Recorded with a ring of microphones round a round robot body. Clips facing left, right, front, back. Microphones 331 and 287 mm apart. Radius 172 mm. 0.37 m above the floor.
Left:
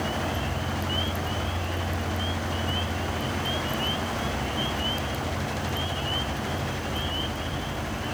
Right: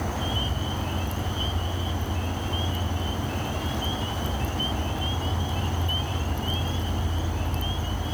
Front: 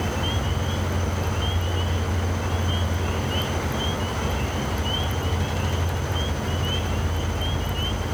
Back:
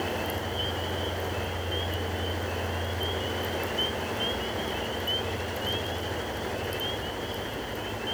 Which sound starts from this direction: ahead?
An insect, at 0.0 s.